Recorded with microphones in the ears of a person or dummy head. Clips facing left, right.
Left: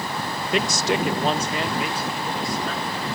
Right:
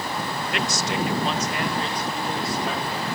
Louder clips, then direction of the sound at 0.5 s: Left 5 dB; 75° left (ahead or behind).